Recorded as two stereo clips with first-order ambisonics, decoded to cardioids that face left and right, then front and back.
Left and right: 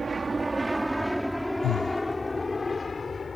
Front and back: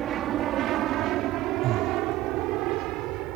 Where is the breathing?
135° left.